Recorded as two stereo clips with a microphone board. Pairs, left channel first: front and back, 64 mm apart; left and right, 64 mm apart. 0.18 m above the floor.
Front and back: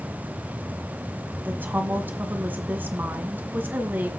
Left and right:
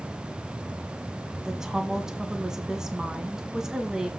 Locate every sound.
1.4 s a woman speaking: 165° right, 1.7 m